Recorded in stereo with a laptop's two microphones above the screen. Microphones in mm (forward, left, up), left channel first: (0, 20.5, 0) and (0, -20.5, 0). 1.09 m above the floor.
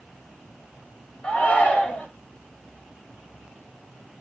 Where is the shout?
35° left (ahead or behind), 5.5 m.